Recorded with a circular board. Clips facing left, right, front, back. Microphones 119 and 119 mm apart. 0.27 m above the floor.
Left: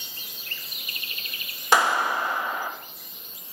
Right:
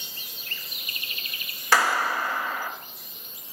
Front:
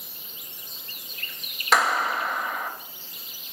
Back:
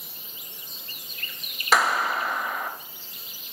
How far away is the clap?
About 0.8 m.